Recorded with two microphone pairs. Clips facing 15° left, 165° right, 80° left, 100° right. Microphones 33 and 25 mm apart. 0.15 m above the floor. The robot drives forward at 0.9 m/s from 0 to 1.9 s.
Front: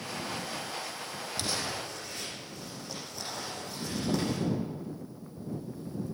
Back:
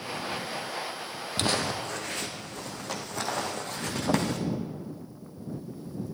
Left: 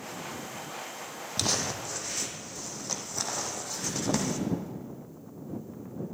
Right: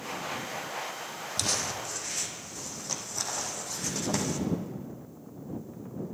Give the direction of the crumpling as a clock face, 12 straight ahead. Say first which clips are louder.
Back 7 dB, left 1 dB; 7 o'clock.